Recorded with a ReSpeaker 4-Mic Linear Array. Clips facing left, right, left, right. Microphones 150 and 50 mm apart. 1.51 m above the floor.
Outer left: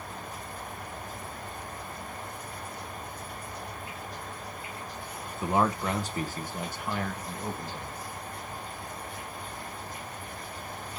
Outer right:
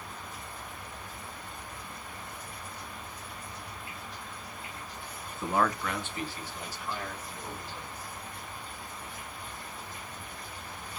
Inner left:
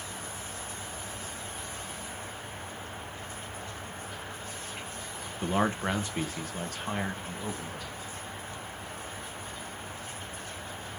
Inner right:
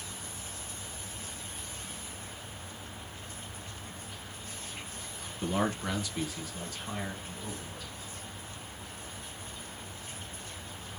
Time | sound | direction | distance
5.4 | a man speaking | 15° left (ahead or behind) | 0.9 m